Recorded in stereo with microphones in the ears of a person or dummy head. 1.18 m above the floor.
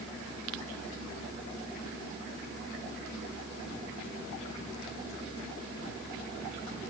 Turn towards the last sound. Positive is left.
No sound to turn to.